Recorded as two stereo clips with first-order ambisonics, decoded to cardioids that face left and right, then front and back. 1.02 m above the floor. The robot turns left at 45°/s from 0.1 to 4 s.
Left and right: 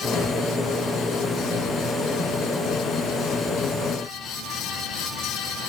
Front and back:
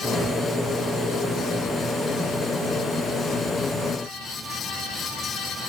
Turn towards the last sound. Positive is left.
No sound to turn to.